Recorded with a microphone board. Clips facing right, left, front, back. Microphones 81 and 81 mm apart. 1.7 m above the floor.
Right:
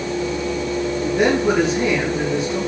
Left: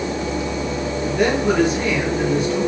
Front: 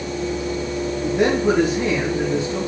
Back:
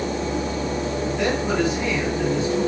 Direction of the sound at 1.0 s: 25° right.